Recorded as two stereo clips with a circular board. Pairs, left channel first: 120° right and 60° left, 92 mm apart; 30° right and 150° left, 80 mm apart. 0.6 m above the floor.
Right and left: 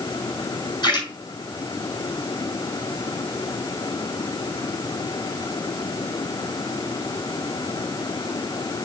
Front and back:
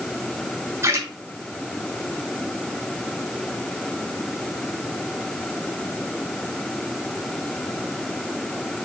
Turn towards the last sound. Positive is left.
turn(degrees=-155)